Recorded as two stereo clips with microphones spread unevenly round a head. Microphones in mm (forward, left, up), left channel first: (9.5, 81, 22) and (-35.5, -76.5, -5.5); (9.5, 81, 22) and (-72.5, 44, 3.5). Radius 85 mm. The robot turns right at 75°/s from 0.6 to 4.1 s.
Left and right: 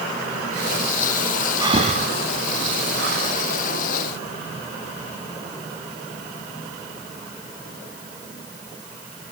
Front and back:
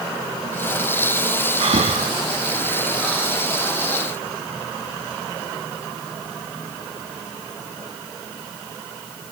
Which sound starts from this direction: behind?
Breathing, at 1.6 s.